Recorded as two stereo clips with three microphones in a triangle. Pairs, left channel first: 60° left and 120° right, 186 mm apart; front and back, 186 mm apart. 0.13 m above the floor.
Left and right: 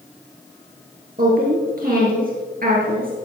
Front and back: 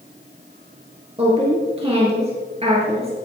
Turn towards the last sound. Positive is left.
turn(degrees=-135)